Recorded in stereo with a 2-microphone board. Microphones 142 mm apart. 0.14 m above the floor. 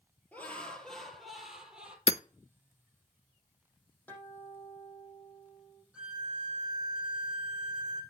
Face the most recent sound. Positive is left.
turn(degrees=-5)  # may be behind; listen again after turning